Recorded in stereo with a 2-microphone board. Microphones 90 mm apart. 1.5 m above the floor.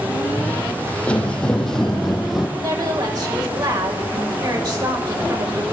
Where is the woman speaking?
45° right (ahead or behind), 5.5 m.